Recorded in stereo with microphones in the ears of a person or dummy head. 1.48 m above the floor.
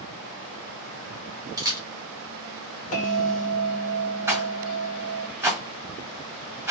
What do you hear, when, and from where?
1.6 s a camera shutter: 15° right (ahead or behind), 1.0 m
2.9 s a bell: 40° left (ahead or behind), 1.5 m
4.3 s a rattle: 10° right (ahead or behind), 1.8 m